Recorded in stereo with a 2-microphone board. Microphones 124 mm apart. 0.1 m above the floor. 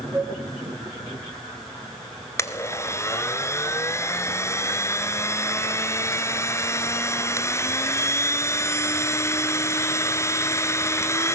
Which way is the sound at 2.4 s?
25° left (ahead or behind).